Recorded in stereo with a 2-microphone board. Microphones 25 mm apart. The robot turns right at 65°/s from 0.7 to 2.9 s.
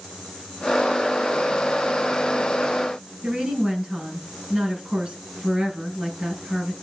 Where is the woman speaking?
50° right (ahead or behind), 5 m.